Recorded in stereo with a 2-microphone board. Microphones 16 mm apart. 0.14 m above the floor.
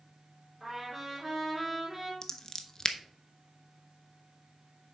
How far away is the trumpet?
About 2.5 m.